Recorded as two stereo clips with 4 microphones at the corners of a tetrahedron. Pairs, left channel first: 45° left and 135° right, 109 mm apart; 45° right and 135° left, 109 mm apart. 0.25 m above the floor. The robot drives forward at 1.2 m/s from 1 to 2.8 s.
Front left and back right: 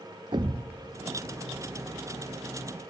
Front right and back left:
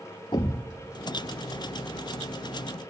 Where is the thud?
90° right, 0.7 m; by 2.9 s 160° right, 2.5 m.